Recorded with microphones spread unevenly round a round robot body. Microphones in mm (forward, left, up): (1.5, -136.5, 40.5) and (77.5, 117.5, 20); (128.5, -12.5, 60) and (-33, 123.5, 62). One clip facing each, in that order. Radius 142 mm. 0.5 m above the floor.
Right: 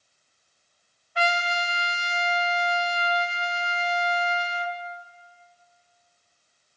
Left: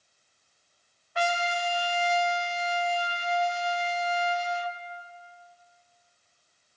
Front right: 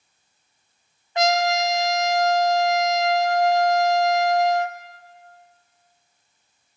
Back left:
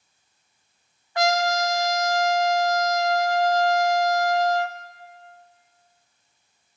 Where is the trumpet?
30° left, 1.4 m.